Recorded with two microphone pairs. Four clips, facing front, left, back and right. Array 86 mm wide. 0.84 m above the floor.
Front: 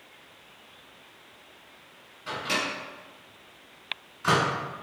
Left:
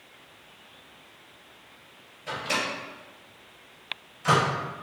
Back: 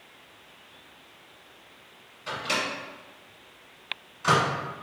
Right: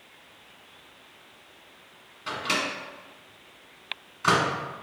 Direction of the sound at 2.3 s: 90° right.